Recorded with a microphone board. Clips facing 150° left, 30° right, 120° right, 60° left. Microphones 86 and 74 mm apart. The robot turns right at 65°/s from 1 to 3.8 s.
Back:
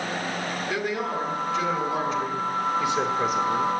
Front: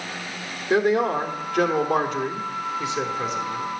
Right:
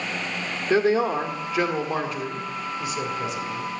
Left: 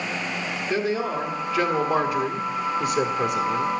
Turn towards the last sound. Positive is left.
turn(degrees=100)